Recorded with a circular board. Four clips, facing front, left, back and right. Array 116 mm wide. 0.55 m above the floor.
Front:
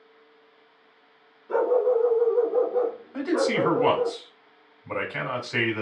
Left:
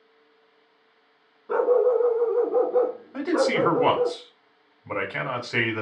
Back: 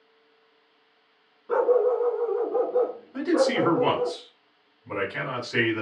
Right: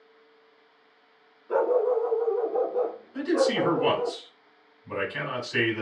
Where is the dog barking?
130° left, 1.4 m; by 4.1 s 75° left, 1.6 m.